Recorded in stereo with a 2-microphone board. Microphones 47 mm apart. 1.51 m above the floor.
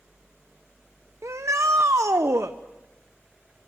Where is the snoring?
No snoring in this recording.